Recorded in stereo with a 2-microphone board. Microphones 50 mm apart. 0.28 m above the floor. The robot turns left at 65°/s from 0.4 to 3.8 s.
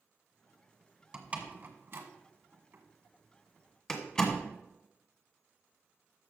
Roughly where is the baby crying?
No baby crying in this recording.